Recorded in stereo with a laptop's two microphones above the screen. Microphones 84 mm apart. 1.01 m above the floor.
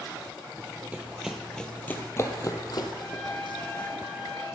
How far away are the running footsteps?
About 1.8 m.